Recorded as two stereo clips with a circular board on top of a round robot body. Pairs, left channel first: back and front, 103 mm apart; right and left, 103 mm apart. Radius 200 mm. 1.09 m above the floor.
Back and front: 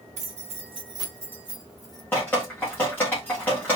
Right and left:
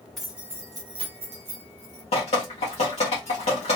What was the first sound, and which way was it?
Keys jangling, 5° right.